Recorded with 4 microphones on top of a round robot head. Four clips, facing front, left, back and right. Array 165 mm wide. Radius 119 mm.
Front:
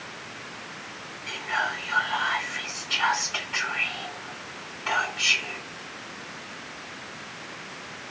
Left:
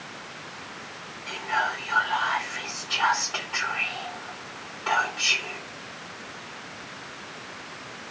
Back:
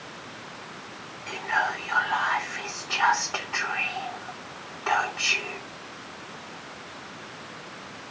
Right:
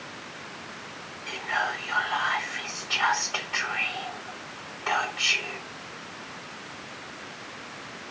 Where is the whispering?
150° left, 2.5 m.